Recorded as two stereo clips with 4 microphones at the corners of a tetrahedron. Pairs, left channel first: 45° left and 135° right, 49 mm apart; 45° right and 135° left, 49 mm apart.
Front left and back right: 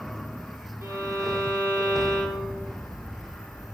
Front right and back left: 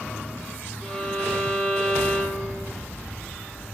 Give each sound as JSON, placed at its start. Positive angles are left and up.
{"t": 0.8, "sound": "a violin", "azimuth_deg": -130, "distance_m": 3.0}